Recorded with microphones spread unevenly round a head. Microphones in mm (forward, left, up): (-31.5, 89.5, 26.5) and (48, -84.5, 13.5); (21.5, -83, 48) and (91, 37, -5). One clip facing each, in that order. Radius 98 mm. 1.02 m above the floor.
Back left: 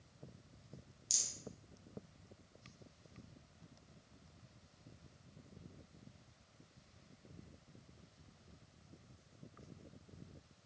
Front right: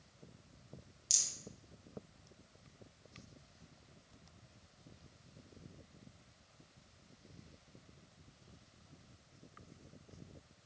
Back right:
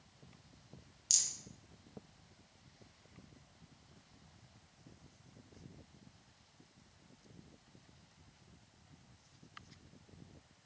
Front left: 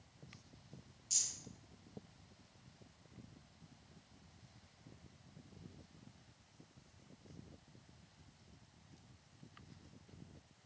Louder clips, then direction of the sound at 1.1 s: Back left 1 dB, back right 3 dB; 150° right.